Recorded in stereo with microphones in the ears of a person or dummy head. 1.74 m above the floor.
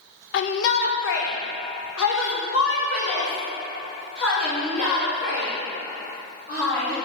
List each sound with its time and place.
0.3 s a shout: 60° left (ahead or behind), 0.6 m; by 7.0 s 75° left (ahead or behind), 4 m